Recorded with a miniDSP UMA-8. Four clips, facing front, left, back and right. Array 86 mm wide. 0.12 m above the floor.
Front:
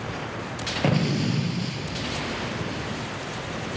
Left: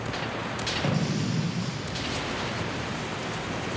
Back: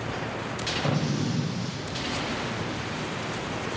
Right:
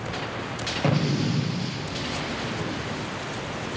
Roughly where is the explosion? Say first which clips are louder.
Right 5 dB, front 5 dB; ahead.